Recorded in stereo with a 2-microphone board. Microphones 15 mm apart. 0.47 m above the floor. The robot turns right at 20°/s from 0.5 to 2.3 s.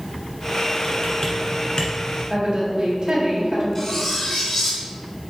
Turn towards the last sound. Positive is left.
turn(degrees=30)  # may be behind; listen again after turning